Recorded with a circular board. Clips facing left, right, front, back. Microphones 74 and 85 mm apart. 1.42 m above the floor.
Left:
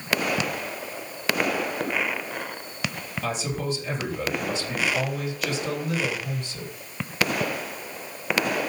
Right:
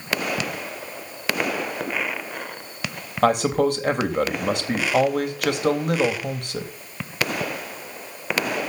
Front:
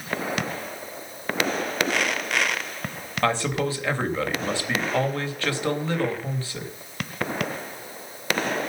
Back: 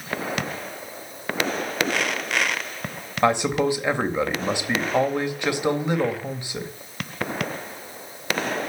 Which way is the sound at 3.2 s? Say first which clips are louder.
Right 11 dB, back 4 dB; 110° right.